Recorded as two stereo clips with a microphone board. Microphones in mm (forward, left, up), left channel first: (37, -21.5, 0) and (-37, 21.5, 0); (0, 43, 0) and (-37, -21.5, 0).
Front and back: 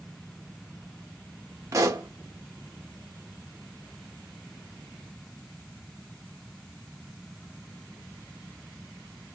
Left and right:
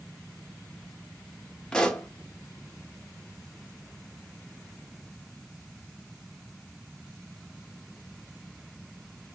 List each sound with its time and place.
1.7 s a pop: 135° left, 0.5 m